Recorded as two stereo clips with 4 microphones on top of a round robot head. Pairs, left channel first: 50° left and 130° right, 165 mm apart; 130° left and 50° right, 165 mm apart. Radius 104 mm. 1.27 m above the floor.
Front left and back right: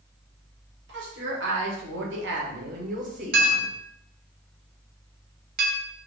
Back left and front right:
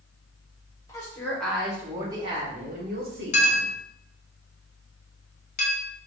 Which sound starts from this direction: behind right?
A woman speaking, at 0.9 s.